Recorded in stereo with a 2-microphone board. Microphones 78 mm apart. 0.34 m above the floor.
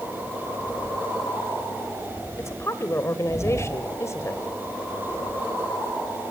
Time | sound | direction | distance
2.4 | a woman speaking | 35° left (ahead or behind) | 1.2 m